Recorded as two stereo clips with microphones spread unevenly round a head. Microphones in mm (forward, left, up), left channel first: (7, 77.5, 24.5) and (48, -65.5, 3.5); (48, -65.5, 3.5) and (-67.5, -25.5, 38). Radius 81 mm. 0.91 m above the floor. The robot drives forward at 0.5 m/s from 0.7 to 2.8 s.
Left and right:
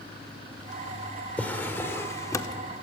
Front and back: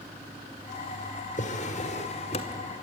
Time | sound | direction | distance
1.4 | a drawer | 25° left | 1.8 m